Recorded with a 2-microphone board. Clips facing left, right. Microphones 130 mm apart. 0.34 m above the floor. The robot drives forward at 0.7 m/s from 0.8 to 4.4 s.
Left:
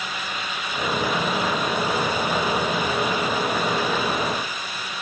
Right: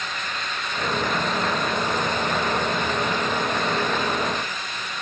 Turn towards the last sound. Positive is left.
No sound to turn to.